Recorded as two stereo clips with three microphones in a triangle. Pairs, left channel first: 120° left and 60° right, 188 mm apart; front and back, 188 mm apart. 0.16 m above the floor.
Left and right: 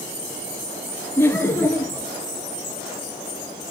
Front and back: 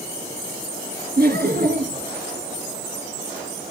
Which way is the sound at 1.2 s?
165° right.